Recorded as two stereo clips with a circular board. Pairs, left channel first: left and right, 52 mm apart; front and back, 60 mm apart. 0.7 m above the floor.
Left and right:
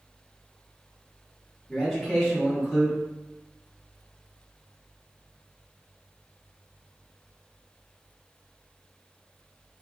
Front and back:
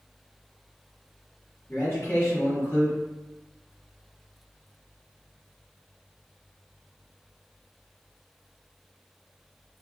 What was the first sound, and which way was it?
A man speaking, 5° left.